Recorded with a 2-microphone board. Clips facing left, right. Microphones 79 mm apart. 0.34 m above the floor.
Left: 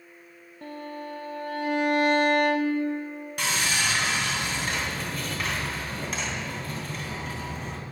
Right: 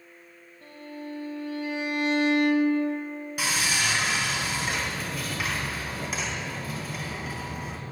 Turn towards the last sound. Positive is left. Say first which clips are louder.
# left 1 dB
turn(degrees=-5)  # may be behind; listen again after turning